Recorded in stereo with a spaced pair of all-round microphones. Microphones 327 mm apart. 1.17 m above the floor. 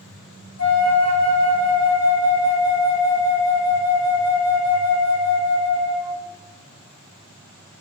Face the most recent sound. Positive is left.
turn(degrees=55)  # may be behind; listen again after turning